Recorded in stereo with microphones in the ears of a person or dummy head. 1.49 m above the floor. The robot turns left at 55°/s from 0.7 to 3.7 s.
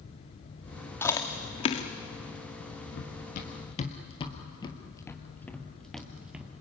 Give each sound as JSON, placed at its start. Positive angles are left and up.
{"t": 1.0, "sound": "chewing", "side_deg": 5, "distance_m": 1.2}
{"t": 2.9, "sound": "running footsteps", "side_deg": 50, "distance_m": 2.0}